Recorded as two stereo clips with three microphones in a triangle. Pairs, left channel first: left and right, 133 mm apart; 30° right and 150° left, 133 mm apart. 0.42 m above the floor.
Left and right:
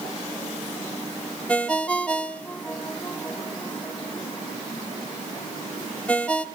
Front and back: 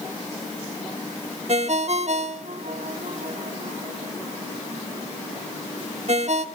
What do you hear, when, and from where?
1.5 s a ringtone: 170° left, 0.9 m